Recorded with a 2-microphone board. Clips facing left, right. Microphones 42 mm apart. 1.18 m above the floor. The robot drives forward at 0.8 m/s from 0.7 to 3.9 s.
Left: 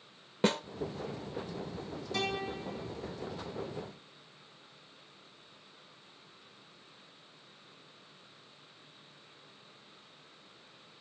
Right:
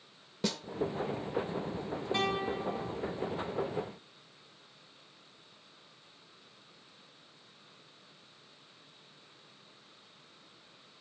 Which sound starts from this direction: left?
A snare drum, at 0.4 s.